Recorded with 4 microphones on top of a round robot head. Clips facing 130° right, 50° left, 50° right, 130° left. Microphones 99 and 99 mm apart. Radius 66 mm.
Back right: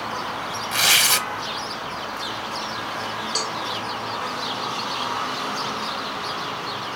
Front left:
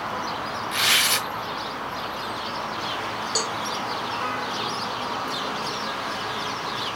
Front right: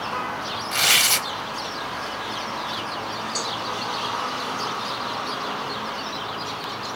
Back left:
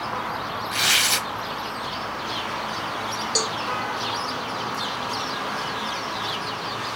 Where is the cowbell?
135° left, 0.7 m.